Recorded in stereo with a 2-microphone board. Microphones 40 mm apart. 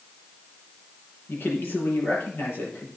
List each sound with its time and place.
1.3 s a man speaking: 60° left (ahead or behind), 5.5 m